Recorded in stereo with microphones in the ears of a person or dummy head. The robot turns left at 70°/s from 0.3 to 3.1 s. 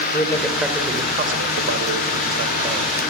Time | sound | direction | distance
0.1 | a man speaking | 15° left | 4.5 m